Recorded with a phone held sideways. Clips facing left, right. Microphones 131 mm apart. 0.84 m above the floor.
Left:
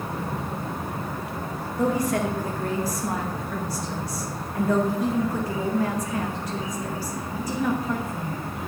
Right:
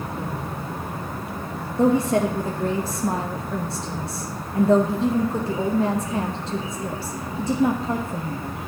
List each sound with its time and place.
1.8 s a woman speaking: 25° right (ahead or behind), 0.9 m